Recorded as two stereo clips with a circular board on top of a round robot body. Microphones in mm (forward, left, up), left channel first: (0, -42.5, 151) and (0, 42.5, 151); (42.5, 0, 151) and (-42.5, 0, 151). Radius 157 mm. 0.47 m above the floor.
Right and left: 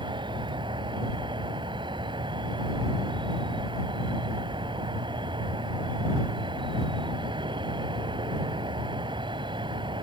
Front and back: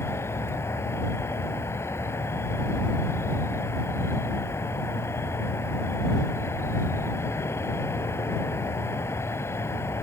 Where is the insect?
60° left.